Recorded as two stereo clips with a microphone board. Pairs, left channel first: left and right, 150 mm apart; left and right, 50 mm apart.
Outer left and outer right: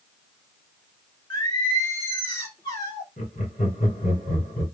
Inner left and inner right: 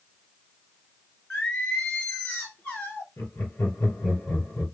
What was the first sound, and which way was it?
Singing, 25° left (ahead or behind).